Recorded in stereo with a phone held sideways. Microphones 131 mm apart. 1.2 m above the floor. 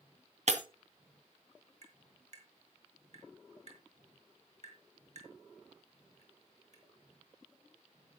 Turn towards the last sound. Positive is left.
turn(degrees=-60)  # may be behind; listen again after turning